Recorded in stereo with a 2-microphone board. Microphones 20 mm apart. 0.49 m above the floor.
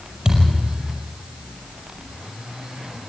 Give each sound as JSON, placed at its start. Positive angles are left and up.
{"t": 0.2, "sound": "a thud", "side_deg": -40, "distance_m": 5.5}